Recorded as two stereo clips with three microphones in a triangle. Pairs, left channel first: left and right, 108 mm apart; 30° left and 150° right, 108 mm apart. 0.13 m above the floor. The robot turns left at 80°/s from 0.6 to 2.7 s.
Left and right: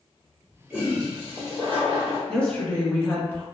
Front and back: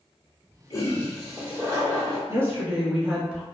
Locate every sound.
0.7 s a toilet flushing: 15° right, 1.2 m; by 2.2 s 135° right, 1.2 m
2.3 s a woman speaking: 170° left, 1.2 m; by 3.4 s 140° left, 1.2 m